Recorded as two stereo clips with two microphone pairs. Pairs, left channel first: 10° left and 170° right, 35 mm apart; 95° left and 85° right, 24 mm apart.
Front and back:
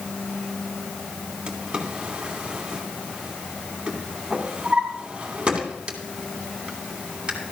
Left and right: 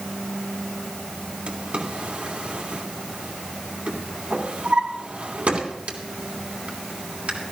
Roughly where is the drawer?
Right.